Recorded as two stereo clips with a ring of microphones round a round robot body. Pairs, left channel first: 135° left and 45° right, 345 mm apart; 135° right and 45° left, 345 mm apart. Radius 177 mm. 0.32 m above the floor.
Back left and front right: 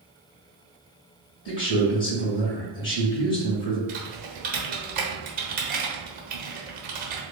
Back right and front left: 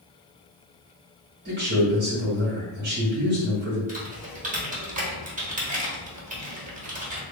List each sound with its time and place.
1.4 s a man speaking: 95° left, 2.0 m
3.9 s typing on a keyboard: 5° right, 1.0 m